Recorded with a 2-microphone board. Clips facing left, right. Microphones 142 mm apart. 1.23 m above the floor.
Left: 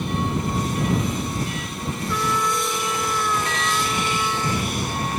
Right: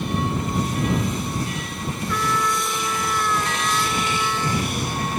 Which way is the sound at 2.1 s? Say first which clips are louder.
Even; 10° left (ahead or behind).